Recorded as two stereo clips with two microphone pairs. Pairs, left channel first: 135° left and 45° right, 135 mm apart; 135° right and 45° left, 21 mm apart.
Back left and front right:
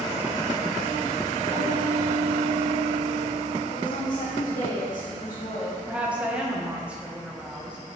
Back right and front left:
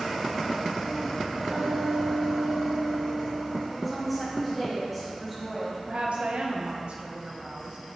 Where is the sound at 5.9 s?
35° left, 0.9 m.